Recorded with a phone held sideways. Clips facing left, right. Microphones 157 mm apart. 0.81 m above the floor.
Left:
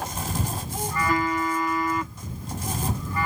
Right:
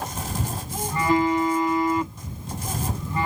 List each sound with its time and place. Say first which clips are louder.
0.9 s a phone buzzing: right 5 dB; 25° right (ahead or behind)